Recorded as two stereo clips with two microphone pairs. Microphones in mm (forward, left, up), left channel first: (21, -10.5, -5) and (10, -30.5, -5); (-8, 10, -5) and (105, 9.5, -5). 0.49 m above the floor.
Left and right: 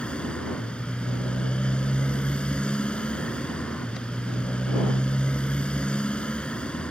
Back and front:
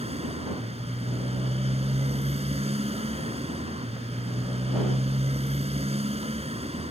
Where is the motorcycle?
25° left.